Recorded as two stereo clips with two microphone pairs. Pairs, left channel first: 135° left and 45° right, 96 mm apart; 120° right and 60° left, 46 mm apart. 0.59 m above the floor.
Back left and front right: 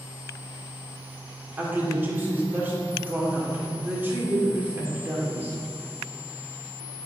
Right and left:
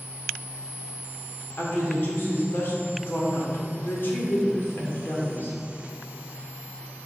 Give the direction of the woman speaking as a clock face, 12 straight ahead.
4 o'clock.